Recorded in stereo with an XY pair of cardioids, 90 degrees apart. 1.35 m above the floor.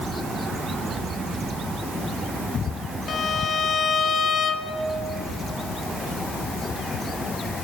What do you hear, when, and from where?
3.1 s a violin: 60° left, 2.0 m